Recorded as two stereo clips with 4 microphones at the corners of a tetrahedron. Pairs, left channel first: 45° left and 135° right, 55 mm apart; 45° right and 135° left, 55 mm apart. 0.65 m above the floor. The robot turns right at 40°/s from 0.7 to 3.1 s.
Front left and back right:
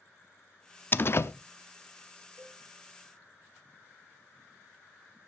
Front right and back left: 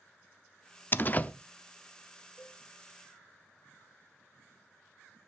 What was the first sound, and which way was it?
A door slam, straight ahead.